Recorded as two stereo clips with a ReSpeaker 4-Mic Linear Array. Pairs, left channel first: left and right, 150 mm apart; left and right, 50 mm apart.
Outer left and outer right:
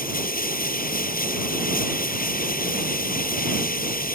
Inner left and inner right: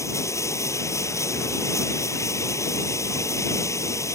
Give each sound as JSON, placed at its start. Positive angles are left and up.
{"t": 0.0, "sound": "running water", "side_deg": 75}